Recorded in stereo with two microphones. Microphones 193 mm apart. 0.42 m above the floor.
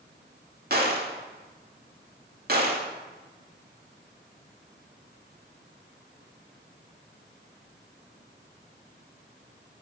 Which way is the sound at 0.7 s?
55° right (ahead or behind).